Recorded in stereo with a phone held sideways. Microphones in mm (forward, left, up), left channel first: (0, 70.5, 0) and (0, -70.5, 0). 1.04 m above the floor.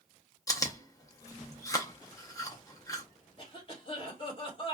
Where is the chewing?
25° left (ahead or behind), 0.5 m.